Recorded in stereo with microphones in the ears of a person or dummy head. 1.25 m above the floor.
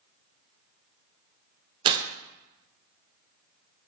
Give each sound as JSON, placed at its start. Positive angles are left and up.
{"t": 1.9, "sound": "tearing paper", "side_deg": -35, "distance_m": 0.5}